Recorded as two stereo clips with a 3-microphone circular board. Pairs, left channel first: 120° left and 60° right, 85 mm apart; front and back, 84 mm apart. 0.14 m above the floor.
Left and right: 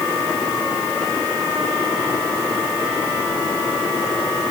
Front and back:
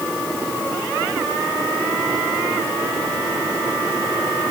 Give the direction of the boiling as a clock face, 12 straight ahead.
I don't hear boiling.